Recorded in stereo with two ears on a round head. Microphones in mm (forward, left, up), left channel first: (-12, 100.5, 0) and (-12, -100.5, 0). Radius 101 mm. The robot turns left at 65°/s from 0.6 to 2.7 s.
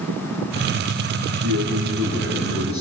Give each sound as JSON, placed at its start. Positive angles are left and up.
{"t": 1.4, "sound": "a man speaking", "azimuth_deg": -125, "distance_m": 9.5}